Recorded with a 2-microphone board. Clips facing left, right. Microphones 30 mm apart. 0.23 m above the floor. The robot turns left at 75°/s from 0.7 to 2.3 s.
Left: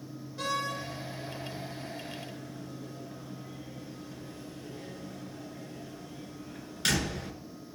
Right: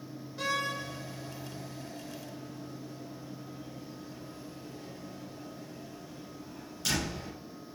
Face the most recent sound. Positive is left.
turn(degrees=60)  # may be behind; listen again after turning